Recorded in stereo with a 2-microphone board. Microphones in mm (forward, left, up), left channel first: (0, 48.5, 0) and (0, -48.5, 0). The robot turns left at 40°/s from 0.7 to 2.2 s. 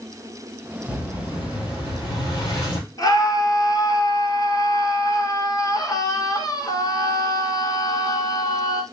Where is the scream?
40° left (ahead or behind), 1.3 m.